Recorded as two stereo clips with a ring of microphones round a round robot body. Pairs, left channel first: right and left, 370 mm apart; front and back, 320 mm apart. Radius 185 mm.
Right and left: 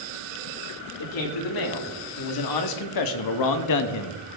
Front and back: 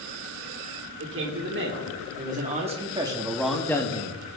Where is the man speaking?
125° right, 2 m; by 4.2 s 60° right, 0.8 m.